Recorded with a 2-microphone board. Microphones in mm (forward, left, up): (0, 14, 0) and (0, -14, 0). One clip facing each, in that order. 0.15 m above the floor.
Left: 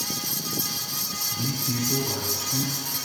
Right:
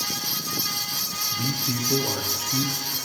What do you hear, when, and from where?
1.3 s a man speaking: 20° right (ahead or behind), 1.7 m